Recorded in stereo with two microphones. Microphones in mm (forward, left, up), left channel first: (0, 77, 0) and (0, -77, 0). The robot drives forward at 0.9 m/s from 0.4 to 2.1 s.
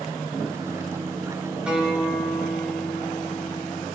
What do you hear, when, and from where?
1.7 s a guitar: 5° right (ahead or behind), 2 m